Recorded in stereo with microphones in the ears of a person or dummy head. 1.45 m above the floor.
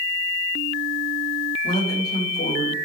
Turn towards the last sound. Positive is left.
turn(degrees=35)  # may be behind; listen again after turning